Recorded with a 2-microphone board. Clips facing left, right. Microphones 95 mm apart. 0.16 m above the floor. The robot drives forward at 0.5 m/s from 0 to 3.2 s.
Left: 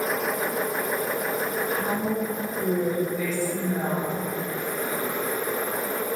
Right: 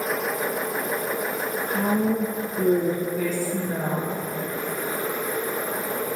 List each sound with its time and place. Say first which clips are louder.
1.7 s a woman speaking: right 3 dB; 60° right (ahead or behind), 2 m; by 4.2 s 55° right (ahead or behind), 2 m